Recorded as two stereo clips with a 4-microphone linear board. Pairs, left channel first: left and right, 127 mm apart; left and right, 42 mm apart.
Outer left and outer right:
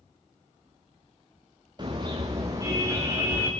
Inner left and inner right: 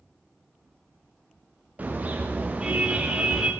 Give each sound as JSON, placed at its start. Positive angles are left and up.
{"t": 1.8, "sound": "a car horn", "side_deg": -35, "distance_m": 8.0}